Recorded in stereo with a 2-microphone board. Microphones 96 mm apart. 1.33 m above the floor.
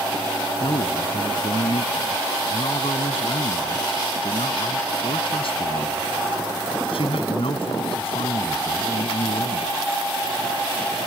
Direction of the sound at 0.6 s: 70° left (ahead or behind).